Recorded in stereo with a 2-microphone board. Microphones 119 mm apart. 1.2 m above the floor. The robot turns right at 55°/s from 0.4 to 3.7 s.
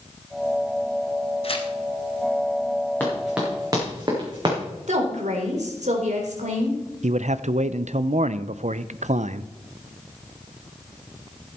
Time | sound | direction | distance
1.4 | tearing paper | 55° left (ahead or behind) | 1.4 m
3.0 | running footsteps | 15° left (ahead or behind) | 5.5 m
4.9 | a woman speaking | 80° right | 3.5 m
7.0 | a man speaking | 75° right (ahead or behind) | 0.5 m